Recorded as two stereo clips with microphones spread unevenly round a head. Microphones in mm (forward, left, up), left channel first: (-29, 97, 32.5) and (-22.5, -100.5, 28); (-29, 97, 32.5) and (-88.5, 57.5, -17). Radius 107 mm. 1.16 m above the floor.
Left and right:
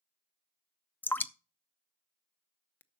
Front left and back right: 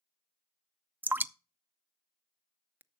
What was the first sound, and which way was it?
Dripping, 175° left.